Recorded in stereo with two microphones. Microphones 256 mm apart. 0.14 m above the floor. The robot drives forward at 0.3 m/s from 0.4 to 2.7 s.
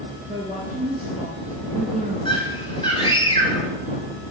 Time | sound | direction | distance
0.3 | a woman speaking | 30° right (ahead or behind) | 1.5 m
2.2 | a scream | 20° left (ahead or behind) | 1.7 m